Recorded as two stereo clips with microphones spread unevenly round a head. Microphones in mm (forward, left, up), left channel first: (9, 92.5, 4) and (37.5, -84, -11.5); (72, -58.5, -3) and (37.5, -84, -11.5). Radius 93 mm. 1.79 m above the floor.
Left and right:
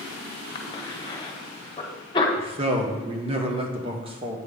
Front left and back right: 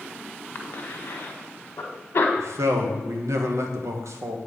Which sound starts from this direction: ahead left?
A cough, at 0.6 s.